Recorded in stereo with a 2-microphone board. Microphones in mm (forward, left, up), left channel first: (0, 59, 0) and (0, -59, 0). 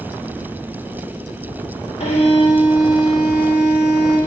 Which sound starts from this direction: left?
A violin, at 2.0 s.